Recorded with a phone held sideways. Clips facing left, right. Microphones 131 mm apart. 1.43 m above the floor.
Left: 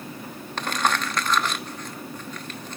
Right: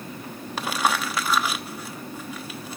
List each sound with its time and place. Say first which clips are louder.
0.6 s crumpling: even; 5° right (ahead or behind), 0.9 m